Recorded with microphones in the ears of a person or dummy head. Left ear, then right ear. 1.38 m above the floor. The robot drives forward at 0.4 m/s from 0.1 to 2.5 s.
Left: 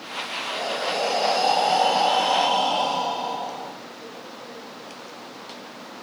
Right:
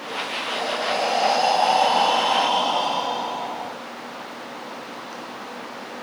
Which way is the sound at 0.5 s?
Centre (ahead or behind).